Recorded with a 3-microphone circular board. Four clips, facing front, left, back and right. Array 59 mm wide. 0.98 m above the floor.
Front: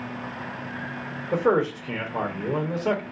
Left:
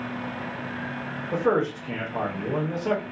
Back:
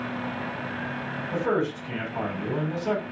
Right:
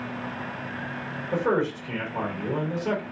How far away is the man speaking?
About 1.3 m.